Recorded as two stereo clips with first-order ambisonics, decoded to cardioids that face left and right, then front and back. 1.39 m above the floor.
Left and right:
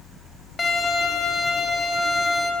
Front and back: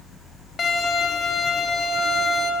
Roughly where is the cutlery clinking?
I don't hear cutlery clinking.